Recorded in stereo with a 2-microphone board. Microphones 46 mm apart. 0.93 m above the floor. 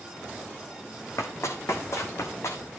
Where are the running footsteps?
65° left (ahead or behind), 2 m.